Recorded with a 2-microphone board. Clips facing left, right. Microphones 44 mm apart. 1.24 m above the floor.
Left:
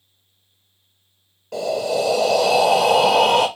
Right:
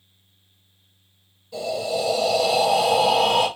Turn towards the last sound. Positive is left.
turn(degrees=65)  # may be behind; listen again after turning